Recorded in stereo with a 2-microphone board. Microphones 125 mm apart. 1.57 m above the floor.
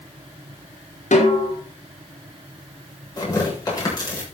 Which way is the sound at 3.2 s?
30° left (ahead or behind).